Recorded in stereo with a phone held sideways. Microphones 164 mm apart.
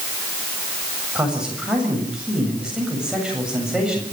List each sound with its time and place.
1.1 s a man speaking: 5° right (ahead or behind), 7 m